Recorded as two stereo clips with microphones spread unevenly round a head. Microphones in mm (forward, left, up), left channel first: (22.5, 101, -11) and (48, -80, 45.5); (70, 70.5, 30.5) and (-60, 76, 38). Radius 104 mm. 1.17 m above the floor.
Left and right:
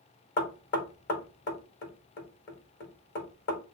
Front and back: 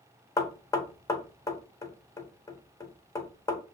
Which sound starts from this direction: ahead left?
Knocking, at 0.4 s.